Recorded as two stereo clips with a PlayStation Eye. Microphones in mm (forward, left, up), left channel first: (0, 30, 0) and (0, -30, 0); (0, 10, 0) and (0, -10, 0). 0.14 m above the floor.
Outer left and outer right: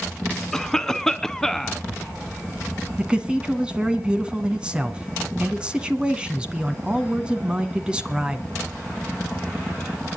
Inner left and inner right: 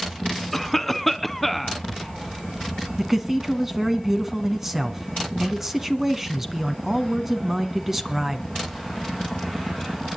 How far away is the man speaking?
About 1.4 m.